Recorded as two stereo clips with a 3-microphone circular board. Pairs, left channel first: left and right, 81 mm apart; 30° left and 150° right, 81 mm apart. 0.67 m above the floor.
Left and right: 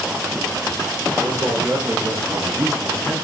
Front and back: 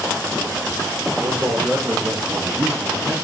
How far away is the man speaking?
About 2.5 m.